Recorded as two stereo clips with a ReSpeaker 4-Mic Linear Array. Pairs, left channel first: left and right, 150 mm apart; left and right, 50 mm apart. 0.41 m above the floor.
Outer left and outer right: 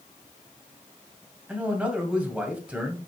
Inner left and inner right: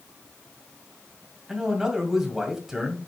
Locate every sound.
1.5 s a man speaking: 10° right (ahead or behind), 2 m